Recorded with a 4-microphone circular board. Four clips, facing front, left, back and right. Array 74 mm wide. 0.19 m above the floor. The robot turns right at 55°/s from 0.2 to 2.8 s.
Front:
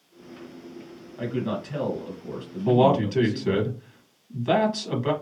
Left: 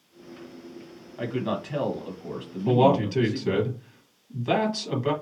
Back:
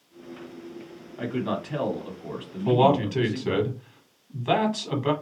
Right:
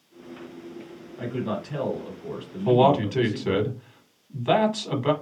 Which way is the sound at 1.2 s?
110° left.